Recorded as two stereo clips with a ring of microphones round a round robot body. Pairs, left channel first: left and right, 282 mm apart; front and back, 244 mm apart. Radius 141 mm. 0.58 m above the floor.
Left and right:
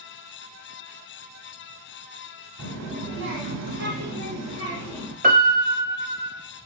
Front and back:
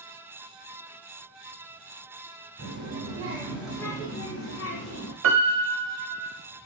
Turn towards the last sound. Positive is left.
turn(degrees=-150)